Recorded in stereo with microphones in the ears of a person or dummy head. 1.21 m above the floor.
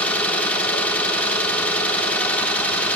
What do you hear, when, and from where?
0.0 s an engine running: 10° left (ahead or behind), 1.5 m